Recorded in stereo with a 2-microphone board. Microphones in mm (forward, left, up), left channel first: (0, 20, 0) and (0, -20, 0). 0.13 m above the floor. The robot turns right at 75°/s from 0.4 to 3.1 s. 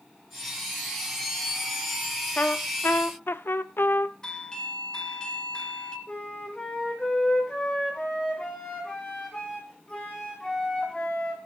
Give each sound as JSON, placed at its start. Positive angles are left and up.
{"t": 2.4, "sound": "a trumpet", "azimuth_deg": 40, "distance_m": 0.7}
{"t": 4.2, "sound": "a doorbell", "side_deg": 20, "distance_m": 2.0}
{"t": 6.1, "sound": "a flute", "side_deg": 20, "distance_m": 5.0}